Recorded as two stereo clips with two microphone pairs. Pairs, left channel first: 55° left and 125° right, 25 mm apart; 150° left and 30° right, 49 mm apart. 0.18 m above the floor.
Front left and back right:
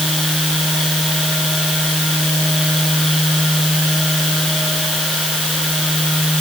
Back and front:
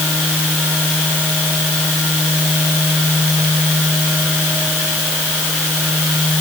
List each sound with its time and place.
Only background noise.